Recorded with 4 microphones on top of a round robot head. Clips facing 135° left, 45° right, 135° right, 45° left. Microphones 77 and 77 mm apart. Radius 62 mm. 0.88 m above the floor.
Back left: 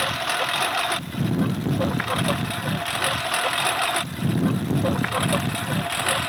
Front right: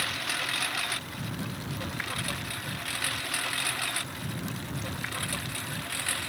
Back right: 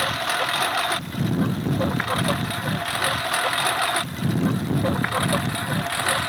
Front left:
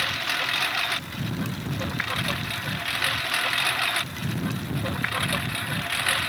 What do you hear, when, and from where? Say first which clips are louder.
0.0 s a lawn mower: back left 9 dB, back right 5 dB; 170° left; by 6.3 s 165° left